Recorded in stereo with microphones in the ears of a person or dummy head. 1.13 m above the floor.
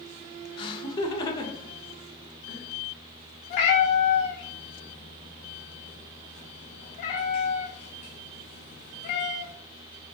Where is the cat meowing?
30° left (ahead or behind), 0.6 m.